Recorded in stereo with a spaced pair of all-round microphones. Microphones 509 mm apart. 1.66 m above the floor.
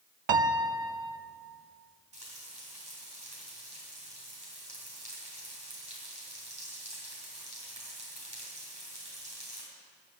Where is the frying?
50° right (ahead or behind), 3.5 m.